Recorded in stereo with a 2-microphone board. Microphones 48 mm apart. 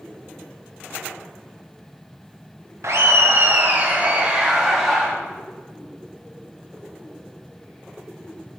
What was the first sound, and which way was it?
Laughter, 75° right (ahead or behind).